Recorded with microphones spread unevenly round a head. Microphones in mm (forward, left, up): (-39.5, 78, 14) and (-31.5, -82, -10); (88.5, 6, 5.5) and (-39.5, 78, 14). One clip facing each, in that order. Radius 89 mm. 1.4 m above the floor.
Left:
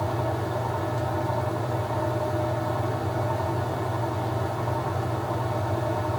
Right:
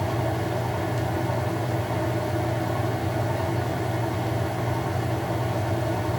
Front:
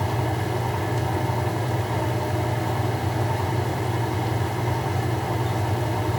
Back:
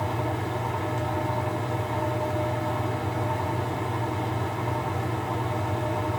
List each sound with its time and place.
0.0 s a fan: 40° right, 0.8 m